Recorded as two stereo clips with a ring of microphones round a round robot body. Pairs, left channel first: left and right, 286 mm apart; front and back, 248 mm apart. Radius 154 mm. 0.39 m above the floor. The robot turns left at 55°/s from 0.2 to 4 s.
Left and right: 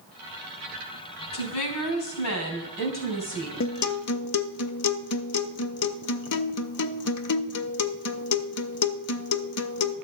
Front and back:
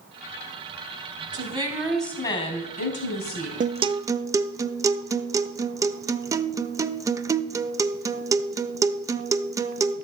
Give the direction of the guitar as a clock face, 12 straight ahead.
8 o'clock.